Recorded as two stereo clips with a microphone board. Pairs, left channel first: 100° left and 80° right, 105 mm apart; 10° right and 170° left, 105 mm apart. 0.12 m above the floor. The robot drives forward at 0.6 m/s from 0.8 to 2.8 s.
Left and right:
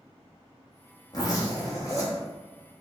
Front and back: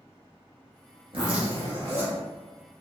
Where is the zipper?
150° left, 1.5 m; by 2.2 s 160° left, 2 m.